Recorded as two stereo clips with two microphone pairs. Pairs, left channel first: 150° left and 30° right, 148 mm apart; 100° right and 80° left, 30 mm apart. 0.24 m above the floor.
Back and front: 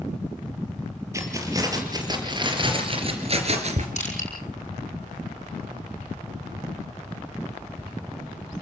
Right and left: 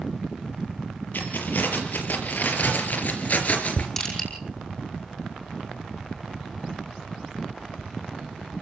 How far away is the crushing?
About 5.5 m.